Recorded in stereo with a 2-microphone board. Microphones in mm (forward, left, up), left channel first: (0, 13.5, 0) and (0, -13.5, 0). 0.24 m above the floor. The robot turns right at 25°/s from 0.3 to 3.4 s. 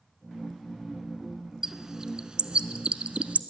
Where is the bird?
20° right (ahead or behind), 0.7 m; by 3.4 s 60° right (ahead or behind), 0.7 m.